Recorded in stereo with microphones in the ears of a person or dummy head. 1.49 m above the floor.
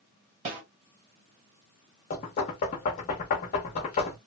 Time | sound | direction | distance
0.5 | a snare drum | 35° right (ahead or behind) | 2.0 m
2.1 | knocking | 35° left (ahead or behind) | 0.7 m